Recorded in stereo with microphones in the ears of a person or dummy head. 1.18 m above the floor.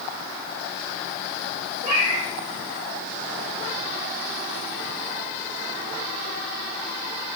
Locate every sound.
1.8 s a cat meowing: 40° right (ahead or behind), 3 m